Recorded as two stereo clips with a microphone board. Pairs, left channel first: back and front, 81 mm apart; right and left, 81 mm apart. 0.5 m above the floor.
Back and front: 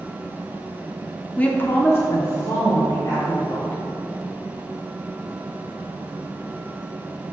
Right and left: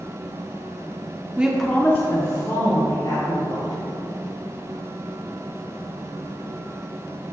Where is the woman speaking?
130° left, 0.8 m; by 3.8 s 120° right, 3 m.